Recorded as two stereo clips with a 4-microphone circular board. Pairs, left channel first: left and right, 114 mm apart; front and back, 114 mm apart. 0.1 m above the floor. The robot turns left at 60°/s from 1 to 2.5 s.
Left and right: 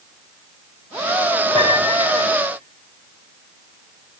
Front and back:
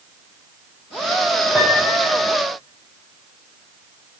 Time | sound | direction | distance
1.6 | a piano | 95° left | 5.5 m